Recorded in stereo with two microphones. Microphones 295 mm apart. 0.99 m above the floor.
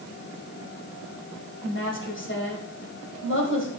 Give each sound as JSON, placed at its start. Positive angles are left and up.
{"t": 1.6, "sound": "a woman speaking", "side_deg": 40, "distance_m": 6.0}